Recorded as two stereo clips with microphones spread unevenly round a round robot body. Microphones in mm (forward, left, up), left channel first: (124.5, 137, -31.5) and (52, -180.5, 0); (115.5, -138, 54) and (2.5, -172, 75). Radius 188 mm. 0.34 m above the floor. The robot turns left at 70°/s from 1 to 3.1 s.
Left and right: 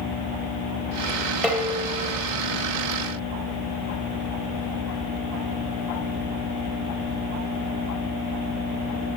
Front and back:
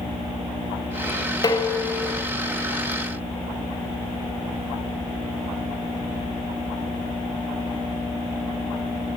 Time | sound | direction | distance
1.4 | dishes clattering | 10° right | 1.0 m